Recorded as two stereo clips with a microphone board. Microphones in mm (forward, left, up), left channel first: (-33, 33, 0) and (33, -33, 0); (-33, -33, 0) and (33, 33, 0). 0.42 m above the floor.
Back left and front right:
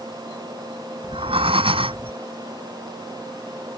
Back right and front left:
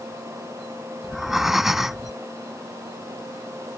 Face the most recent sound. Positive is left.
turn(degrees=-40)